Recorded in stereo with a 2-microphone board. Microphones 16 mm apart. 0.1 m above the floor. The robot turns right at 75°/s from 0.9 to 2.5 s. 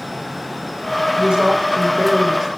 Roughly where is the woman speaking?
Behind right.